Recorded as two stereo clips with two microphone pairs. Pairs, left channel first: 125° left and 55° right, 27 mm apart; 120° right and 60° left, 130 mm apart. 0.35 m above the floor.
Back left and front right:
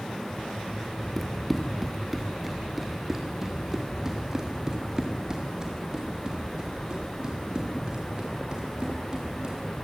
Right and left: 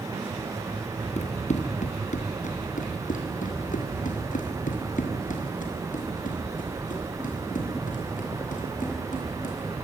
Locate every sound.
1.2 s running footsteps: 150° right, 2 m; by 9.6 s 110° right, 6.5 m